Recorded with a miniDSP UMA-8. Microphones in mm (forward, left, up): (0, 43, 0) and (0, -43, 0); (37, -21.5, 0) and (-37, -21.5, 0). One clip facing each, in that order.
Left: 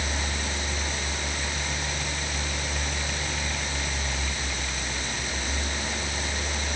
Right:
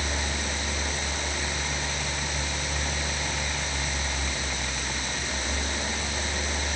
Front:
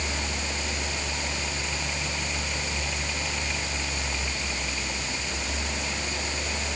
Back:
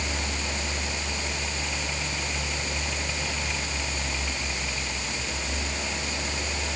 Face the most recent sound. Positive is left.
No sound to turn to.